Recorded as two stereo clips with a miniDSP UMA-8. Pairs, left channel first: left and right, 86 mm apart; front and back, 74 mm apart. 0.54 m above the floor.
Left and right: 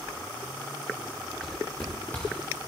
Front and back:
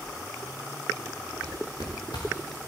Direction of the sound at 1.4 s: 10° left.